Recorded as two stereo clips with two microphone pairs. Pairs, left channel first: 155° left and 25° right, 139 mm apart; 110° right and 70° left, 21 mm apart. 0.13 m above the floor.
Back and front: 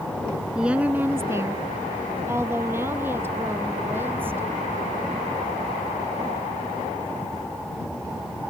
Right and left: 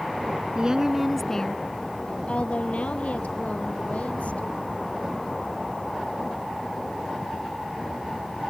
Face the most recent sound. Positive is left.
turn(degrees=-100)